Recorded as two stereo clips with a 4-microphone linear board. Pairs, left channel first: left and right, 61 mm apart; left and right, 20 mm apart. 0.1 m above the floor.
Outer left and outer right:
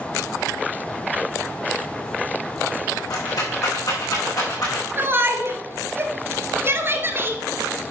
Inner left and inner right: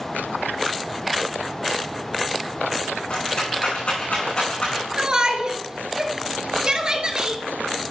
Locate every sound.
3.1 s a rattle: 70° left (ahead or behind), 5 m
5.0 s a shout: 35° right (ahead or behind), 1.4 m